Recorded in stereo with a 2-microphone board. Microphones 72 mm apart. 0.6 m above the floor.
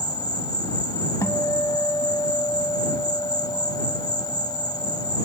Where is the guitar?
40° left (ahead or behind).